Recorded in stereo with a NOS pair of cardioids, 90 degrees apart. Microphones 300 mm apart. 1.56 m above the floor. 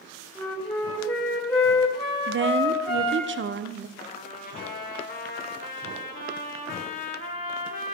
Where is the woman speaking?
40° right, 0.7 m.